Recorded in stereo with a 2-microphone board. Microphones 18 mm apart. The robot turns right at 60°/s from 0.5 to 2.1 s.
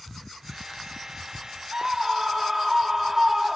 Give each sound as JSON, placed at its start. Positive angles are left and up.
{"t": 1.7, "sound": "a scream", "side_deg": -45}